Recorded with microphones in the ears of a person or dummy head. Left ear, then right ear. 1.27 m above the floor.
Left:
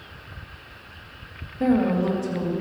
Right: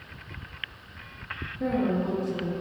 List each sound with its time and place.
1.6 s a woman speaking: 50° left (ahead or behind), 1.7 m